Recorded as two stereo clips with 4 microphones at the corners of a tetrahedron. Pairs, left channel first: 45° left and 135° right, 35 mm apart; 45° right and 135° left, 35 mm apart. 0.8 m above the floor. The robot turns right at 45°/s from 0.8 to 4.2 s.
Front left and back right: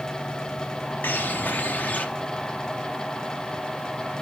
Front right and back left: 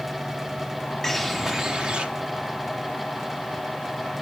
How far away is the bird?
About 1.5 m.